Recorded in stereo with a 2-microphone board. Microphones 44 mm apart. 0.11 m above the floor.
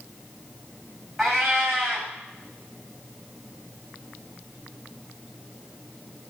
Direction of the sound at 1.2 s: 5° right (ahead or behind).